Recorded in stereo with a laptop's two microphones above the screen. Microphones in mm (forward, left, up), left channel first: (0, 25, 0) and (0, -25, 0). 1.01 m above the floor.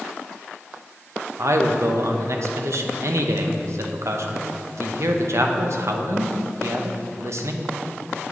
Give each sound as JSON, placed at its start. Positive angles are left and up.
{"t": 1.4, "sound": "a man speaking", "side_deg": -65, "distance_m": 0.6}